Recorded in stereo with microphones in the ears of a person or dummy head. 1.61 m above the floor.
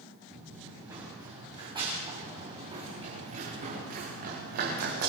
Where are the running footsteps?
5° right (ahead or behind), 8.5 m; by 5.1 s 45° right (ahead or behind), 7.5 m.